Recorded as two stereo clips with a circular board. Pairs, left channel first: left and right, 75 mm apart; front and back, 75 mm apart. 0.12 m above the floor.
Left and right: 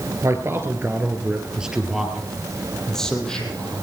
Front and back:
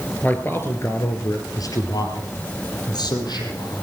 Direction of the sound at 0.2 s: 60° right.